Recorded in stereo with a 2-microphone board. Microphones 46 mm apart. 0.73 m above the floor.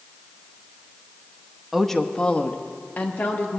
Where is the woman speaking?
5° right (ahead or behind), 0.6 m; by 3.6 s 45° left (ahead or behind), 1.7 m.